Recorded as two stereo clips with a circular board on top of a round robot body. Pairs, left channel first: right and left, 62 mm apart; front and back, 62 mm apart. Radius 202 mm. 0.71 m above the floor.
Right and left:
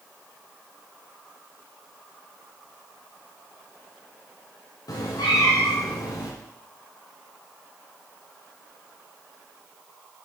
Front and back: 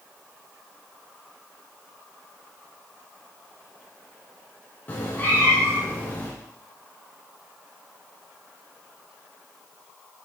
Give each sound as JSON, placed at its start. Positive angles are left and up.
{"t": 4.9, "sound": "a cat meowing", "azimuth_deg": -65, "distance_m": 1.5}